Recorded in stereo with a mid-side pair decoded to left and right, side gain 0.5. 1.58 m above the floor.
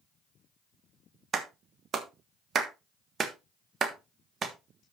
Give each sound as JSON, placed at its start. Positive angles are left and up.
{"t": 1.3, "sound": "a clap", "azimuth_deg": -45, "distance_m": 1.4}